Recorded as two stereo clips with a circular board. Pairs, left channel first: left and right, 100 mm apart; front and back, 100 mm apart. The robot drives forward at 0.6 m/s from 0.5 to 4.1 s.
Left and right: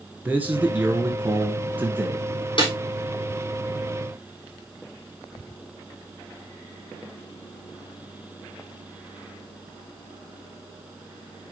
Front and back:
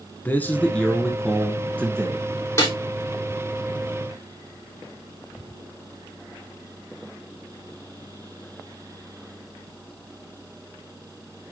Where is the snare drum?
60° left, 5 m.